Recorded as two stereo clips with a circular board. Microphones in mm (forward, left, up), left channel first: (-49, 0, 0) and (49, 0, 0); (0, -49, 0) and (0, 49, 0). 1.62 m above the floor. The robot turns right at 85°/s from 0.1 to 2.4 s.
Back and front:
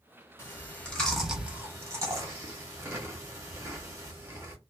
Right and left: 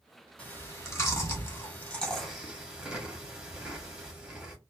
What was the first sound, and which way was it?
Chewing, 155° right.